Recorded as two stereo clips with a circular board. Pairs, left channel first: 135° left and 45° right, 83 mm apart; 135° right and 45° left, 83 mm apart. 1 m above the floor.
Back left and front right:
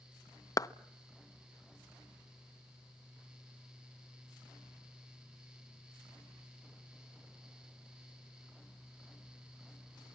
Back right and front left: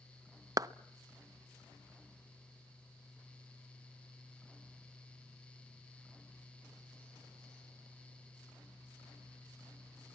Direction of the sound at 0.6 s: 90° left.